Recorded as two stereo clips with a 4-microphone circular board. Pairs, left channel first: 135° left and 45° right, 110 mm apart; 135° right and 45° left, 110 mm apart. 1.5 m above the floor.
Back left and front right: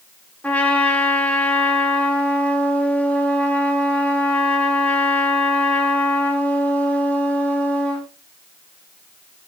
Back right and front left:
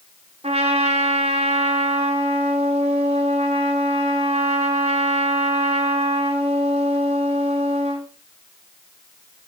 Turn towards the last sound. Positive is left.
turn(degrees=60)